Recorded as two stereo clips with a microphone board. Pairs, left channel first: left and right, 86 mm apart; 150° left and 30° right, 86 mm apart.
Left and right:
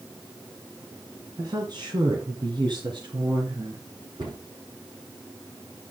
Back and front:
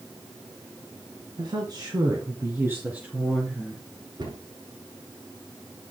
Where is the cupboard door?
65° right, 9.5 m.